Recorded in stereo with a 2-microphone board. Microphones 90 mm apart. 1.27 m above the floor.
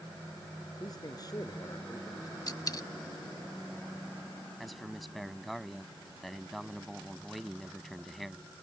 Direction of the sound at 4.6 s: Centre (ahead or behind).